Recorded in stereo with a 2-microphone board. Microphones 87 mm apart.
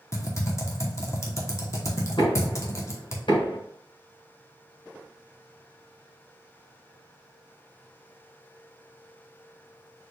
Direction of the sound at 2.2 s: 70° left (ahead or behind).